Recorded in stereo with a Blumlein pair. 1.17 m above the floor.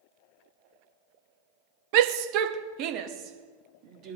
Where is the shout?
45° right, 0.8 m; by 4.2 s 35° right, 2.5 m.